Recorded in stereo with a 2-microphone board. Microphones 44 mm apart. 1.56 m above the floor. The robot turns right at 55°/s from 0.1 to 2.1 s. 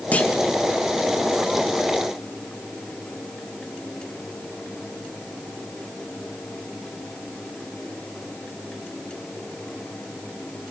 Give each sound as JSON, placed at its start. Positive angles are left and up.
{"t": 0.1, "sound": "a clunk", "side_deg": 30, "distance_m": 1.8}